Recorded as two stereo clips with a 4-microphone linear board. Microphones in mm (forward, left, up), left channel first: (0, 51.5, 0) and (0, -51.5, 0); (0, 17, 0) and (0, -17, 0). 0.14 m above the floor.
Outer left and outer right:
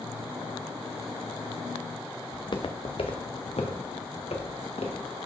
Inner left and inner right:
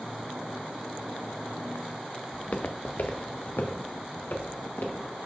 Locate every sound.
2.3 s footsteps: 45° left (ahead or behind), 1.0 m; by 5.1 s 90° left, 3 m